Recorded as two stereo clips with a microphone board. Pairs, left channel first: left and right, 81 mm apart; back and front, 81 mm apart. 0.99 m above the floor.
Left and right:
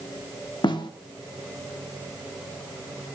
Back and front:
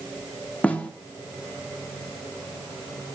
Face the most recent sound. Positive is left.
turn(degrees=105)